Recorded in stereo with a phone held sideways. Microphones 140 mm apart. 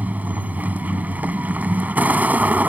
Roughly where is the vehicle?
Centre.